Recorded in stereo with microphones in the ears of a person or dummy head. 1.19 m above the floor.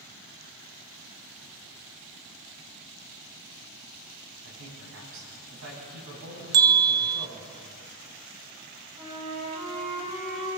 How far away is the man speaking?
About 9.5 m.